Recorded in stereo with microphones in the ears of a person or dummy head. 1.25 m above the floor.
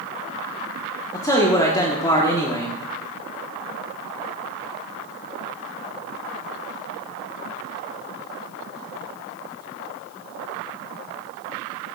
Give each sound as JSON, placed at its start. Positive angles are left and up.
{"t": 1.1, "sound": "a man speaking", "side_deg": 15, "distance_m": 1.3}